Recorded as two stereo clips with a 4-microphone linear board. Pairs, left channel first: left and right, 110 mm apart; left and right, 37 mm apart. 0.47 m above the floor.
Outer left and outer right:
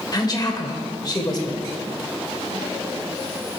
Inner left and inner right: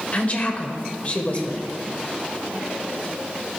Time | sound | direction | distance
0.1 | a woman speaking | 40° left (ahead or behind) | 1.6 m